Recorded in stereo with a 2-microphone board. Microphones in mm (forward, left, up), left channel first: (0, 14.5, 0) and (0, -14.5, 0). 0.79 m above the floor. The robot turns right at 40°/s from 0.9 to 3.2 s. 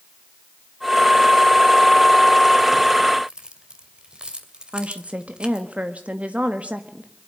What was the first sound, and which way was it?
Keys jangling, 25° right (ahead or behind).